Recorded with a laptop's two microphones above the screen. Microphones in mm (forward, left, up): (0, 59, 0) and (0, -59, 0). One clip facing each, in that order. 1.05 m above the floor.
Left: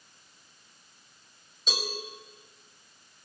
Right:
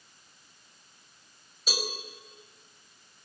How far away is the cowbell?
About 5 m.